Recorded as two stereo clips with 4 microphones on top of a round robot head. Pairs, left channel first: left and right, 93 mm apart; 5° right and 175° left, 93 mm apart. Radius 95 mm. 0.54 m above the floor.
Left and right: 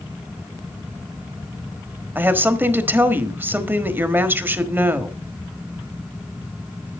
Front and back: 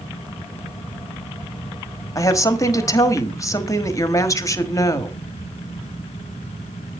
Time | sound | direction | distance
2.1 | a woman speaking | 35° right | 1.5 m